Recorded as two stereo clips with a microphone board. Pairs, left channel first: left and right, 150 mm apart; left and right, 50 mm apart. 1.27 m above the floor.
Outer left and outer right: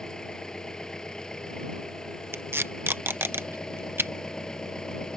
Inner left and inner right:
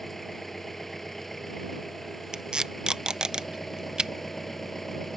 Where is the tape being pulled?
15° right (ahead or behind).